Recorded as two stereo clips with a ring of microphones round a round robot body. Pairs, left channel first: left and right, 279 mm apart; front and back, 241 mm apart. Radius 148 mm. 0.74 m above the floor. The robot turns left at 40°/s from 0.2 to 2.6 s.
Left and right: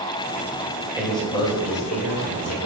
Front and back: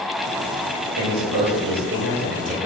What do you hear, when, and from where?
1.0 s a man speaking: 175° right, 3 m; by 2.7 s 120° left, 3 m